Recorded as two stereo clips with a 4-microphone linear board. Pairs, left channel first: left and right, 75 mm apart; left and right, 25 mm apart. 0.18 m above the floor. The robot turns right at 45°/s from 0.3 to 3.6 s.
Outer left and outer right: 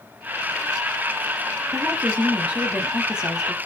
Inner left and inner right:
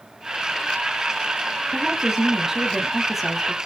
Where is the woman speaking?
20° right (ahead or behind), 1.3 m; by 3.6 s 5° right (ahead or behind), 1.3 m.